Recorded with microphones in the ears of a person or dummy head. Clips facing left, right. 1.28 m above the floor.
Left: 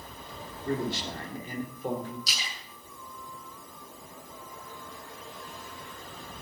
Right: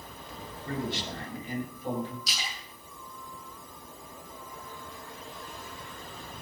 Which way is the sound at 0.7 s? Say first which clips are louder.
Left 3 dB; 35° left (ahead or behind).